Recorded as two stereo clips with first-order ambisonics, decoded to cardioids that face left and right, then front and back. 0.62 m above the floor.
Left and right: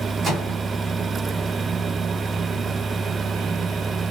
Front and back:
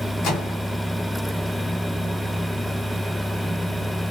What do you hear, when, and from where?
0.2 s a microwave: 25° right, 1.5 m